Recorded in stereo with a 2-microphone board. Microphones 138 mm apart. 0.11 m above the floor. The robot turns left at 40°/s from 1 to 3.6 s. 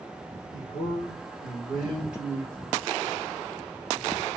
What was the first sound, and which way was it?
A man speaking, 35° left.